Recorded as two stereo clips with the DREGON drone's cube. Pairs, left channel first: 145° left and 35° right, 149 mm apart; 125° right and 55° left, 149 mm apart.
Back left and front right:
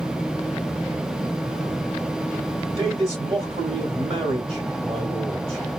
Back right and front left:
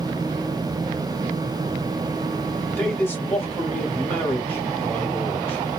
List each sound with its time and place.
2.8 s a man speaking: 55° right, 1.9 m